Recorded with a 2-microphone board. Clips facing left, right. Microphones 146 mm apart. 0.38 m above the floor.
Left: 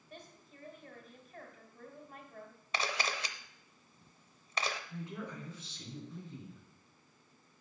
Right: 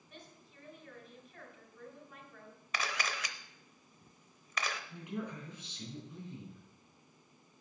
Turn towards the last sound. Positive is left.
turn(degrees=-15)  # may be behind; listen again after turning